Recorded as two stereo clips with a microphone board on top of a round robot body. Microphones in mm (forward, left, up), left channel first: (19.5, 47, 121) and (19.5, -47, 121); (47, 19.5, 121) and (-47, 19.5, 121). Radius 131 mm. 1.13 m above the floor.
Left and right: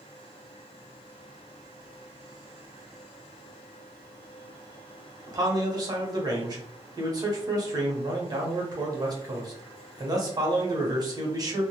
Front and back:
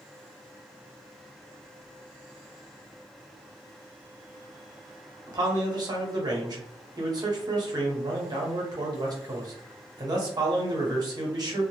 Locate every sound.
5.3 s a man speaking: 135° right, 0.9 m